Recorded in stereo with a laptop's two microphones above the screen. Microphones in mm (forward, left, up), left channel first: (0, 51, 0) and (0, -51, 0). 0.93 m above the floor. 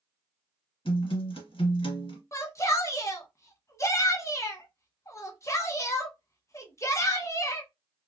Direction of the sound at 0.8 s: 60° left (ahead or behind).